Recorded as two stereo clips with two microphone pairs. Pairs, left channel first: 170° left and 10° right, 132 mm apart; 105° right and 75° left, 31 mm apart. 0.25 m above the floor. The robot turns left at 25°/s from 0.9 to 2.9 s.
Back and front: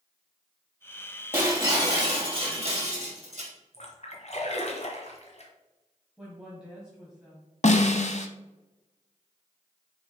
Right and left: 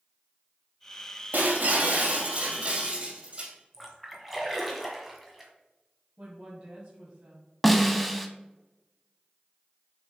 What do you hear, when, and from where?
1.3 s breaking glass: 60° left, 2.5 m; by 3.5 s 25° left, 2.5 m
3.7 s a splash: 165° left, 1.4 m
6.2 s a woman speaking: 70° left, 1.6 m
7.6 s a snare drum: 175° left, 0.7 m